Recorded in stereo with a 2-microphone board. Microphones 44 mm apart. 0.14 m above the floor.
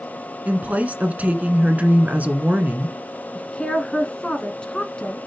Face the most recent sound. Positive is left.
turn(degrees=20)  # may be behind; listen again after turning